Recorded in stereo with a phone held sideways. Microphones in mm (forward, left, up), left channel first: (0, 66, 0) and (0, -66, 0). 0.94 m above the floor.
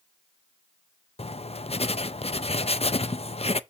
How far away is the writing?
About 0.5 m.